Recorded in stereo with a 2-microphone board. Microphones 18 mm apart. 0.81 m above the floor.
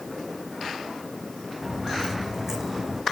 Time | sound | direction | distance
1.6 | footsteps | 10° right (ahead or behind) | 2.5 m